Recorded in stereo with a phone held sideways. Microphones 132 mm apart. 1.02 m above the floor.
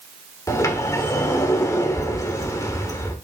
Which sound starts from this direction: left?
A sliding door, at 0.5 s.